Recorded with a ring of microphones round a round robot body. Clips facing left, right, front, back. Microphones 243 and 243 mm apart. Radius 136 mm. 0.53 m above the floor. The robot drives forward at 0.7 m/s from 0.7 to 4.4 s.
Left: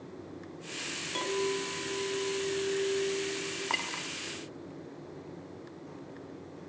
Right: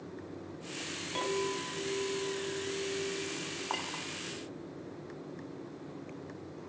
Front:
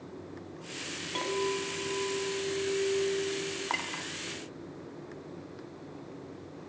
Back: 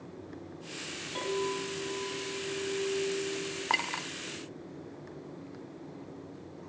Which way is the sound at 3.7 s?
145° left.